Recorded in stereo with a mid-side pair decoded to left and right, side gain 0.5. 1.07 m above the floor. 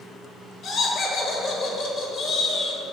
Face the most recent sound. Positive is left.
turn(degrees=60)